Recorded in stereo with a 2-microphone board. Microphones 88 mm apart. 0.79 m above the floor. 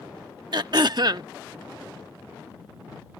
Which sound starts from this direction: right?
Throat clearing, at 0.5 s.